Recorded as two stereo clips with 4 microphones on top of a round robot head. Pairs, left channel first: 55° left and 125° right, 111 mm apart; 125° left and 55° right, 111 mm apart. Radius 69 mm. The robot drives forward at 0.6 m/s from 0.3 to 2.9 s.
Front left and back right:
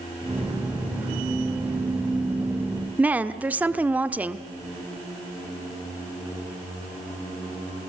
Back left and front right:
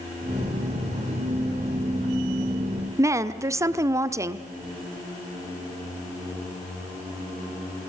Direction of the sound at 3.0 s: 65° right.